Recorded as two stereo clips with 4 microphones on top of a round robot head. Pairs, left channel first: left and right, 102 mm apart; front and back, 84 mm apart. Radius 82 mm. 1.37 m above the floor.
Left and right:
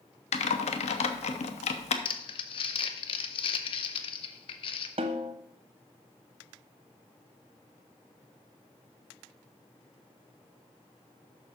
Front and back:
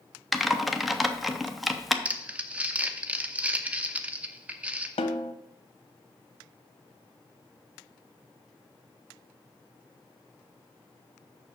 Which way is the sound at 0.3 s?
90° left.